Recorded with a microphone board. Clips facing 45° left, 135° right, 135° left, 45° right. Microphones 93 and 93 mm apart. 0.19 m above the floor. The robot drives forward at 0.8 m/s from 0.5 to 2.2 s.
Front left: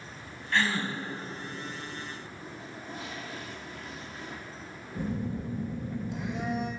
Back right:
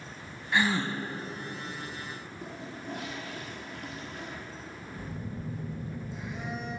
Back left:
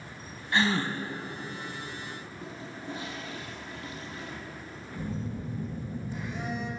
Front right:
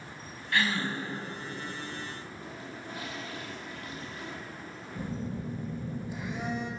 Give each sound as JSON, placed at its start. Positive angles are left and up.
{"t": 0.5, "sound": "a gasp", "azimuth_deg": 160, "distance_m": 0.7}
{"t": 2.4, "sound": "a toilet flushing", "azimuth_deg": -160, "distance_m": 2.0}
{"t": 5.0, "sound": "a phone buzzing", "azimuth_deg": 30, "distance_m": 1.6}